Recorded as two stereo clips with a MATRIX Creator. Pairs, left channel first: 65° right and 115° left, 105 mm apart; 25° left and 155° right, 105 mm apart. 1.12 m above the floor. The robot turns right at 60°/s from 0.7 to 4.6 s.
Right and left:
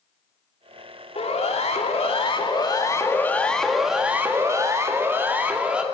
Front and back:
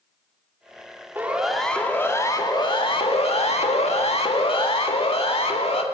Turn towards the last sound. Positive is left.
turn(degrees=30)